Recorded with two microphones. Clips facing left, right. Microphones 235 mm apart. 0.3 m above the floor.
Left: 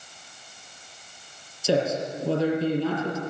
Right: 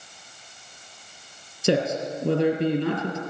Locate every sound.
1.6 s a man speaking: 70° right (ahead or behind), 3 m